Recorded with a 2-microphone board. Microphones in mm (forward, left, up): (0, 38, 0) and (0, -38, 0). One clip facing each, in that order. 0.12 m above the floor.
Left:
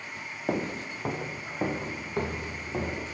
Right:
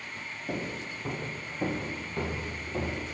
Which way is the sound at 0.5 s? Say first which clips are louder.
Left 5 dB; 85° left.